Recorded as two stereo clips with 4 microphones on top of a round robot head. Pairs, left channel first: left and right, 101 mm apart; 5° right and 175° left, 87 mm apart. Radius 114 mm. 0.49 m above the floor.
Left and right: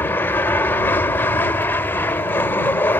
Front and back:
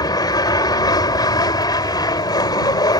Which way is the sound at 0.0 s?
20° left.